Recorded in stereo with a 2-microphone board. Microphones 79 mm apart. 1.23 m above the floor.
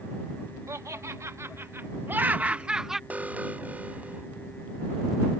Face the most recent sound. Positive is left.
turn(degrees=-20)  # may be behind; listen again after turning